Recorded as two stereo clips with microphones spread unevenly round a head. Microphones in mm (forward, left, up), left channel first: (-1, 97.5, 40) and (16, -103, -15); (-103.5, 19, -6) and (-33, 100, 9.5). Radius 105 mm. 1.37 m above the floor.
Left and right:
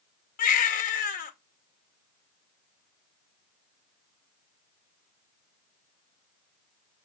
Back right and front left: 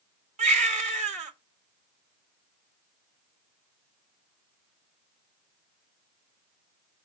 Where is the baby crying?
45° left, 1.8 m.